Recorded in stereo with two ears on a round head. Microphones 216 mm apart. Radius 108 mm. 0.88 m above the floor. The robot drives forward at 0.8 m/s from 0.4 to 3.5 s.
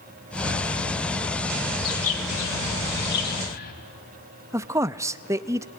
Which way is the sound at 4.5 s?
10° right (ahead or behind).